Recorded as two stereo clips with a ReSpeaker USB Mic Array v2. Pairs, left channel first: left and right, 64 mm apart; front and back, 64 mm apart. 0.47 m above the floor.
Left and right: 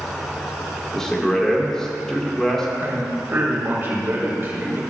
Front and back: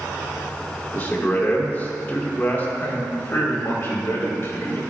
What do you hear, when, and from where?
0.9 s a man speaking: 15° left, 1.3 m
2.8 s a man speaking: 40° right, 1.9 m